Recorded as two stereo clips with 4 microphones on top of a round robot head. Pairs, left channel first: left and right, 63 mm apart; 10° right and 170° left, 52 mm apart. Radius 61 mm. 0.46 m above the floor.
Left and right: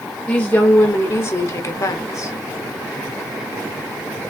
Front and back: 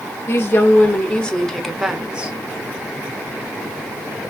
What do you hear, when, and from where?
0.3 s a woman speaking: 20° left, 1.5 m; by 2.3 s 105° left, 1.4 m